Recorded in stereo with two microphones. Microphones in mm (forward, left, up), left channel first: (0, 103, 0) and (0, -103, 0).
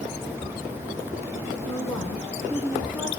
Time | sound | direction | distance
1.6 | a woman speaking | 10° left (ahead or behind) | 1.4 m